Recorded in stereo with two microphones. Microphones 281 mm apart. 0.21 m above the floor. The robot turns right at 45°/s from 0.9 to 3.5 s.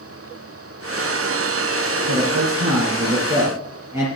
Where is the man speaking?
75° right, 3.5 m; by 4.1 s 10° right, 3.5 m.